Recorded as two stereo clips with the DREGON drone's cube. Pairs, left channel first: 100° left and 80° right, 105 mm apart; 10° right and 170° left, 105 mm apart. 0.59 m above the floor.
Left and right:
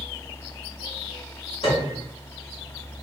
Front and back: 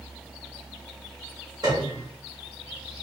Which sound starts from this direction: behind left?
A piano, at 1.6 s.